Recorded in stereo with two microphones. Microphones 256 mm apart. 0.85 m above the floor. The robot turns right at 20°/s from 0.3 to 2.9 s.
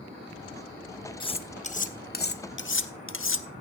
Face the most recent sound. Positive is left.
turn(degrees=55)  # may be behind; listen again after turning